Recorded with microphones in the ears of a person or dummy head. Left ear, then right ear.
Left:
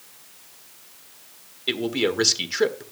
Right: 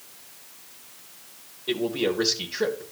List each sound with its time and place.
1.7 s a man speaking: 55° left (ahead or behind), 1.4 m